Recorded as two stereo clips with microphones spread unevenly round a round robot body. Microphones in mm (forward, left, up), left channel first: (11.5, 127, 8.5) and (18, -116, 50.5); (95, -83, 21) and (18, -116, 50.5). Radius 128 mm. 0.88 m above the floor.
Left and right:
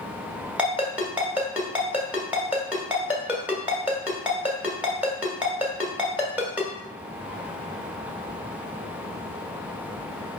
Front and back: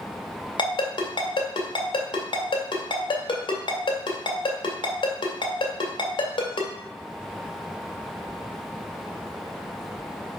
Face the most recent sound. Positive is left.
turn(degrees=-5)